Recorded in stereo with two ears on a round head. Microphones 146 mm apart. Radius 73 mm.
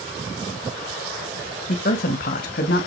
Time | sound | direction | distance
1.7 | a woman speaking | 55° left (ahead or behind) | 2.5 m